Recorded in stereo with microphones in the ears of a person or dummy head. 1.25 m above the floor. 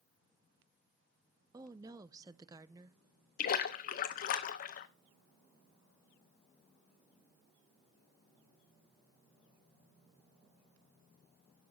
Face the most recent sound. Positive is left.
turn(degrees=45)  # may be behind; listen again after turning